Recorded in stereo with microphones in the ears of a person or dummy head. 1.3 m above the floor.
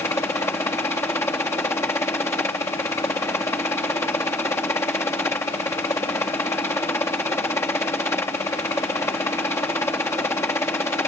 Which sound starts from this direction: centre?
A helicopter, at 0.0 s.